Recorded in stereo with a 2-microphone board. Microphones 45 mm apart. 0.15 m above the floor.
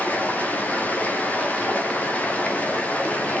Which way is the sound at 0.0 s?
35° left (ahead or behind).